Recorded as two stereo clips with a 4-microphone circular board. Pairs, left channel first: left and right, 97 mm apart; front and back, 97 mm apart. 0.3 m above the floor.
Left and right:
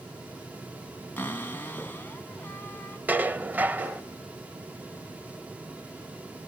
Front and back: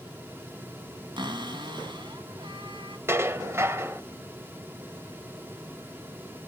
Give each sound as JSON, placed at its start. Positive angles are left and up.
{"t": 1.2, "sound": "a cupboard door", "azimuth_deg": 160, "distance_m": 1.8}
{"t": 3.1, "sound": "dishes clattering", "azimuth_deg": -145, "distance_m": 0.9}